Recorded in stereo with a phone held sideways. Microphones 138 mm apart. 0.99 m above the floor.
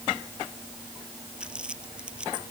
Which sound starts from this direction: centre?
Crumpling, at 1.4 s.